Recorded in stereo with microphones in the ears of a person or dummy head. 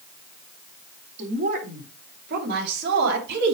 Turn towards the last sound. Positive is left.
turn(degrees=-65)  # may be behind; listen again after turning